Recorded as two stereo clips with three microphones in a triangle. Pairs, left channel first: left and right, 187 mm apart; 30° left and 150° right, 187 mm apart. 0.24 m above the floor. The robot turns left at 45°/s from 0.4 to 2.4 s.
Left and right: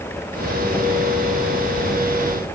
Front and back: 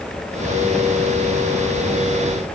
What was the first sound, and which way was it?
Only background noise.